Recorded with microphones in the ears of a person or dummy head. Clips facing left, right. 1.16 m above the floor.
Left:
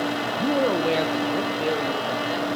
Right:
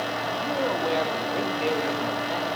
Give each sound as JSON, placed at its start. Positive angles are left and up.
{"t": 0.4, "sound": "a man speaking", "side_deg": 50, "distance_m": 0.7}